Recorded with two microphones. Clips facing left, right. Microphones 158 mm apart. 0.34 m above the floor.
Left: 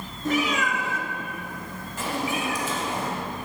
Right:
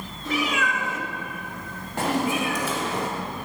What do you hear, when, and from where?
0.2 s a cat meowing: 50° left (ahead or behind), 1.9 m; by 3.1 s 80° right, 2 m